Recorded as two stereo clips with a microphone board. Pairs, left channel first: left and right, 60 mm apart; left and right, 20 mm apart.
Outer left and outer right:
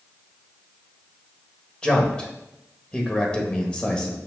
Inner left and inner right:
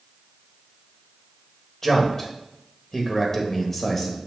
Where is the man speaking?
20° left (ahead or behind), 1.4 m.